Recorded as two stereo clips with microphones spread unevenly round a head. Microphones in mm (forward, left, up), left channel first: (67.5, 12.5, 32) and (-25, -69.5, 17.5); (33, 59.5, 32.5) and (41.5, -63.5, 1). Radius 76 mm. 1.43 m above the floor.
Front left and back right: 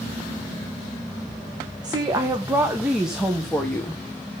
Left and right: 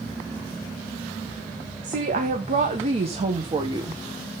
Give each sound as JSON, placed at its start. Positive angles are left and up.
{"t": 1.8, "sound": "a woman speaking", "azimuth_deg": -80, "distance_m": 1.7}